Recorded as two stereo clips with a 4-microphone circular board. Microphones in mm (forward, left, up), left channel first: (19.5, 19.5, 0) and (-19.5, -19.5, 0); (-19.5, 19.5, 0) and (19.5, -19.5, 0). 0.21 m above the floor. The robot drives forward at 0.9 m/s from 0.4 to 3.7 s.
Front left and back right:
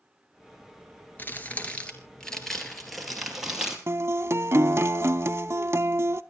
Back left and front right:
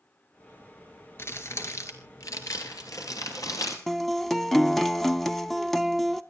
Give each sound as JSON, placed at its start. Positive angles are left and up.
{"t": 1.2, "sound": "crumpling", "azimuth_deg": 95, "distance_m": 2.0}
{"t": 3.9, "sound": "a guitar", "azimuth_deg": -140, "distance_m": 0.6}